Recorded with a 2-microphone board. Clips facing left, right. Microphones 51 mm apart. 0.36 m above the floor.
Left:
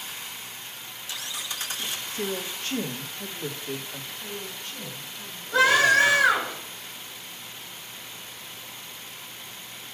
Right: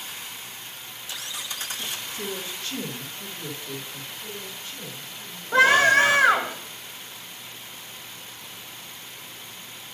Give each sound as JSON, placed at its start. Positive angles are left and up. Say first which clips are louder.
{"t": 2.1, "sound": "a woman speaking", "louder": "left 5 dB", "side_deg": 45, "distance_m": 1.8}
{"t": 4.2, "sound": "a woman speaking", "louder": "left 1 dB", "side_deg": 50, "distance_m": 4.0}
{"t": 5.5, "sound": "a scream", "louder": "right 2 dB", "side_deg": -40, "distance_m": 2.5}